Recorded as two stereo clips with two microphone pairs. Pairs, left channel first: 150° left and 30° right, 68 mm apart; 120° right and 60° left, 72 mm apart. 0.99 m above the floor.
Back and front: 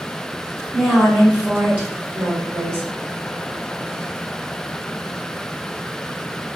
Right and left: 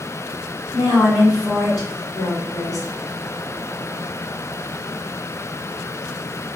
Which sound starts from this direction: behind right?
A woman speaking, at 0.7 s.